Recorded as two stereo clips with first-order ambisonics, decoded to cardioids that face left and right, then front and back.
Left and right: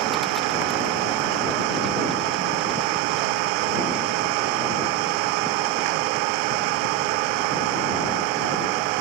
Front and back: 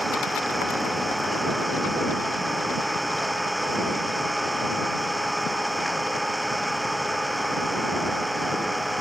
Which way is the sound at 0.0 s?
90° right.